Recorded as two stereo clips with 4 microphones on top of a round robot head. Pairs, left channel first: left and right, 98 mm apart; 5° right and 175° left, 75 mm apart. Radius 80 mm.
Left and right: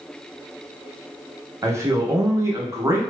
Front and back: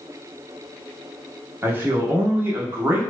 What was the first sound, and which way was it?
A man speaking, 135° right.